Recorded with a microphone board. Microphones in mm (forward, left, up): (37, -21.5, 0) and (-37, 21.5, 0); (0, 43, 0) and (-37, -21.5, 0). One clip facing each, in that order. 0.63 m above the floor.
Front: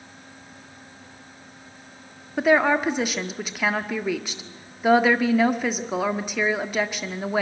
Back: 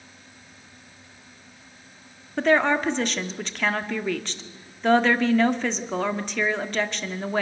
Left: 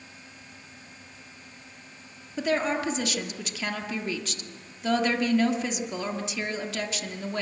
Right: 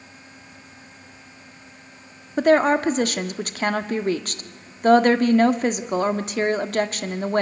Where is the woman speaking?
110° right, 1.5 m.